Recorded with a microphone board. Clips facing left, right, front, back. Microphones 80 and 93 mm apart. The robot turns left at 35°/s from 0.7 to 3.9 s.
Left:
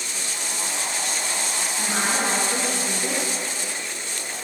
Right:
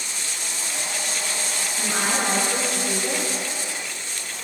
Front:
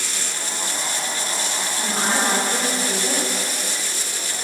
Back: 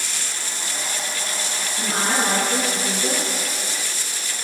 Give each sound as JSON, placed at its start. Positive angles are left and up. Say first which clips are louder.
{"t": 1.8, "sound": "a woman speaking", "louder": "even, even", "azimuth_deg": -175, "distance_m": 5.0}